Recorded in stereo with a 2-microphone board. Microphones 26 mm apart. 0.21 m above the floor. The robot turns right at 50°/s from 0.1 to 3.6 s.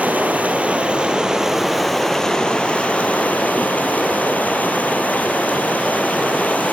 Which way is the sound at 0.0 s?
90° right.